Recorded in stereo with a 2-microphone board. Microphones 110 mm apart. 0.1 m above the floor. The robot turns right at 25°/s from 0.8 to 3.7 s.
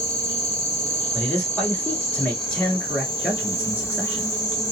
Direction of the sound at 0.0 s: 85° left.